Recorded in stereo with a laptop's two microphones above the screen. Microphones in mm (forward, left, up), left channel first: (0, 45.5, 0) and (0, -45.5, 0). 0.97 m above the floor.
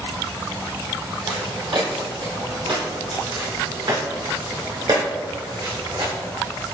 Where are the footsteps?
60° right (ahead or behind), 2.0 m; by 6.1 s 45° right (ahead or behind), 3.5 m.